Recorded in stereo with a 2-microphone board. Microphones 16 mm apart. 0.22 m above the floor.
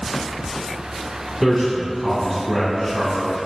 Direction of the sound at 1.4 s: 15° right (ahead or behind).